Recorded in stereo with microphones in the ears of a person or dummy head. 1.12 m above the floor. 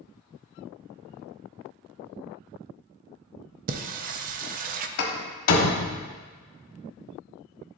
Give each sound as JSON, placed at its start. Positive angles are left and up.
{"t": 3.7, "sound": "singing", "side_deg": -40, "distance_m": 0.5}
{"t": 5.0, "sound": "a door slam", "side_deg": 75, "distance_m": 1.3}